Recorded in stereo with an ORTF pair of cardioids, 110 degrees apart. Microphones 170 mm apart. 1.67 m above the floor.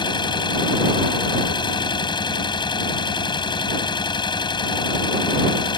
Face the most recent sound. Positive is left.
turn(degrees=25)